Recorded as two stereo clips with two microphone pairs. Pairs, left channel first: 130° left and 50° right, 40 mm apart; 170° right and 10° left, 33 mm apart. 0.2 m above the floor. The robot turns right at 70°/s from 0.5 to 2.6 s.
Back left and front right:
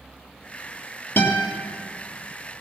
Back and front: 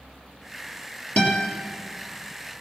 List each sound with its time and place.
1.2 s a guitar: 145° left, 2.5 m; by 1.5 s 170° left, 2.5 m